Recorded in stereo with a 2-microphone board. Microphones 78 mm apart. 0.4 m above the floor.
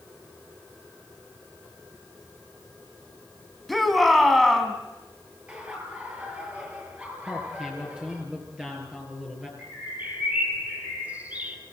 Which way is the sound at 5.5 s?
20° right (ahead or behind).